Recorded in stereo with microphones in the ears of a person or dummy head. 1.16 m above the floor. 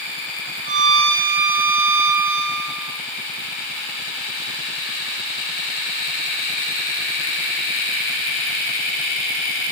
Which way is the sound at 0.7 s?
40° right (ahead or behind).